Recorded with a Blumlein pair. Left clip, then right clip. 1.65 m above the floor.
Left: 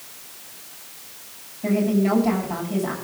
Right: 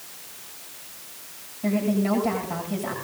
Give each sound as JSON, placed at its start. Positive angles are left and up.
{"t": 1.6, "sound": "a woman speaking", "azimuth_deg": 0, "distance_m": 7.5}